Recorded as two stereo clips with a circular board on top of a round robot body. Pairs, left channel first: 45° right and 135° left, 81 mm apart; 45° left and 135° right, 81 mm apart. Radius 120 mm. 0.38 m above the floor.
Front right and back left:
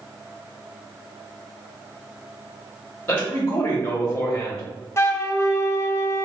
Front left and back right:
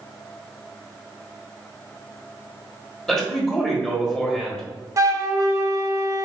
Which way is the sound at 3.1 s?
25° right.